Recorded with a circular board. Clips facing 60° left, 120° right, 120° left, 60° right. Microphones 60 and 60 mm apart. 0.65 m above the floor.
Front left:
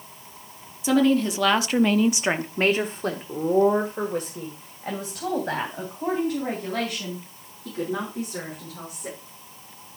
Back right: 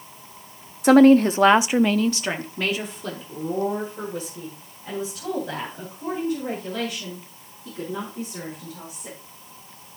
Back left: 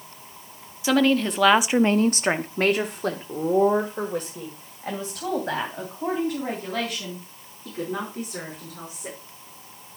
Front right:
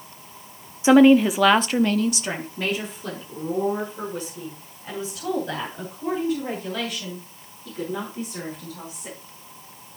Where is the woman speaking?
120° right, 1.1 m; by 9.2 s 85° left, 7 m.